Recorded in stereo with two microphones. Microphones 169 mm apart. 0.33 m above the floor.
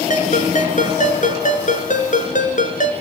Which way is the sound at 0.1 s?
50° left (ahead or behind).